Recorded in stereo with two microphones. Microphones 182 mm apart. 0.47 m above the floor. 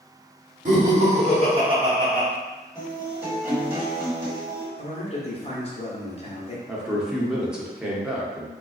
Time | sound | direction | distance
0.7 | laughter | 45° right (ahead or behind) | 1.3 m
2.8 | a guitar | 10° right (ahead or behind) | 1.7 m
4.8 | a man speaking | 35° left (ahead or behind) | 1.2 m
6.7 | a man speaking | 5° right (ahead or behind) | 0.7 m